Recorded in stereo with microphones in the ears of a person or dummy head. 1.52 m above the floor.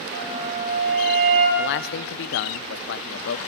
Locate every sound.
0.1 s a flute: 55° right (ahead or behind), 7.5 m
1.6 s a man speaking: 65° left (ahead or behind), 0.9 m